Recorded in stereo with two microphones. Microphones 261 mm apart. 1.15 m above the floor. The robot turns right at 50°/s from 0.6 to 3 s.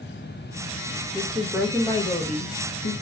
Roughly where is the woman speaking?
Ahead right.